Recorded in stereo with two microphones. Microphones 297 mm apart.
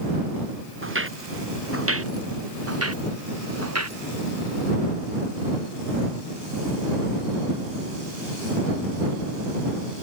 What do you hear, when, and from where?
0.8 s footsteps: 40° right (ahead or behind); by 4.0 s 55° right (ahead or behind)